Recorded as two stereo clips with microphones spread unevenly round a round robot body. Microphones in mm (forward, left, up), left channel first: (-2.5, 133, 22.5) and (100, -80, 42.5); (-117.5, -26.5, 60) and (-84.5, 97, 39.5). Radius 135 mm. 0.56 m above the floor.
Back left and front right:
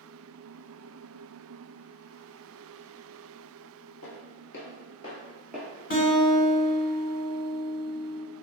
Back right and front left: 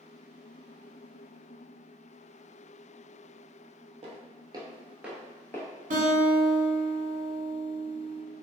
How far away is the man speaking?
No man speaking in this recording.